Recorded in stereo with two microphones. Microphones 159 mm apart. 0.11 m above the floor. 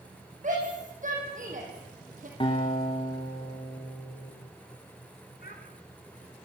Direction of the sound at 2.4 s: 30° left (ahead or behind).